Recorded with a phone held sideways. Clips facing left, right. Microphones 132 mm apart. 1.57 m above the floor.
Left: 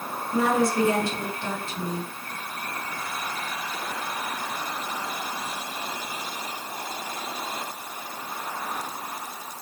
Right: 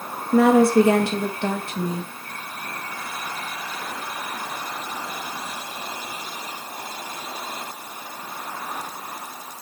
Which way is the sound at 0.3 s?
65° right (ahead or behind).